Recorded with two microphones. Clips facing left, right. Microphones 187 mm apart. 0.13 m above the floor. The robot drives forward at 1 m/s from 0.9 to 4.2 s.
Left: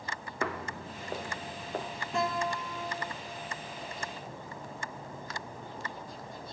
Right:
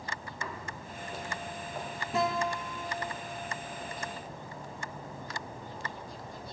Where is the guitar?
5° right (ahead or behind), 2.5 m.